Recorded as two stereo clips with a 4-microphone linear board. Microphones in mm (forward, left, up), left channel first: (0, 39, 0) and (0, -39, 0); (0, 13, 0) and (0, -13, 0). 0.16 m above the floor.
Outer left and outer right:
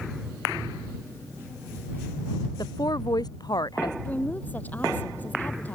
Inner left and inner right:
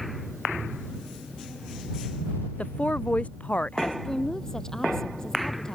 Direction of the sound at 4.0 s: 20° left (ahead or behind).